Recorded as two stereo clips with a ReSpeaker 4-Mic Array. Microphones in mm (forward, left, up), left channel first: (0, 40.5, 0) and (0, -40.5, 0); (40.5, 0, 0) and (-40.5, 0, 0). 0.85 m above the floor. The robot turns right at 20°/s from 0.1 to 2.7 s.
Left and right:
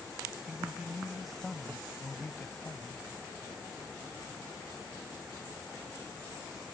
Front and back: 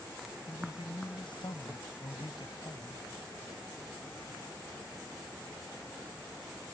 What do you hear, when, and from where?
0.5 s a man speaking: 15° right; by 3.0 s 30° left